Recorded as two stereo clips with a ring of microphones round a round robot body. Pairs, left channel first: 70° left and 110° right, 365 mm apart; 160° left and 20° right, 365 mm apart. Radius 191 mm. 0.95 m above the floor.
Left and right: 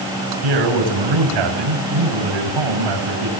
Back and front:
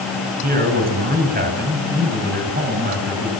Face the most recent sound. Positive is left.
turn(degrees=-90)